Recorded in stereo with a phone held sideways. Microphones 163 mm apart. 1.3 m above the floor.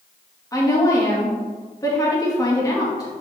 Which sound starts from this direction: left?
A woman speaking, at 0.5 s.